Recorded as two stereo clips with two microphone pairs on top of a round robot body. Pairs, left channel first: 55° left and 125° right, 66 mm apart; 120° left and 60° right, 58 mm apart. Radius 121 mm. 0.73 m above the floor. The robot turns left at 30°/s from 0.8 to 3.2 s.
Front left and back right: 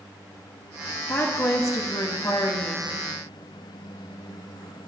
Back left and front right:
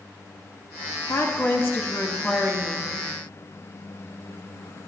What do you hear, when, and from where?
1.1 s a woman speaking: 100° left, 2.5 m; by 2.9 s 45° left, 2.5 m